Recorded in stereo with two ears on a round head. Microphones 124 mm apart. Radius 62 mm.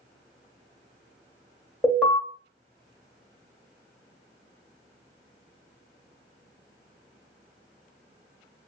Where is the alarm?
10° left (ahead or behind), 1.3 m.